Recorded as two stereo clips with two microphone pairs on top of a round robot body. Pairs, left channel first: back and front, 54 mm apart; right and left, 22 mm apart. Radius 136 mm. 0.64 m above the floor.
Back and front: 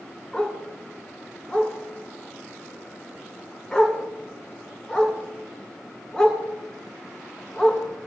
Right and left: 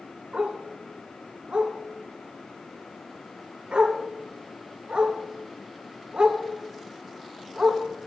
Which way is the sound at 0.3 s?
100° left.